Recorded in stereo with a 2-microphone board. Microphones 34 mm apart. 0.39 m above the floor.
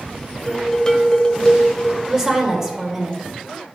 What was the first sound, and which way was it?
Dishes clattering, 20° left (ahead or behind).